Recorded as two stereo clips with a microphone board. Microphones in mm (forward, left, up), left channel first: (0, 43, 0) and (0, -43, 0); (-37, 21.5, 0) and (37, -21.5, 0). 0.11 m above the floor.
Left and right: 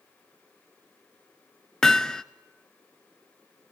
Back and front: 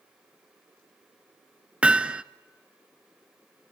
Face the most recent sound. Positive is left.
turn(degrees=20)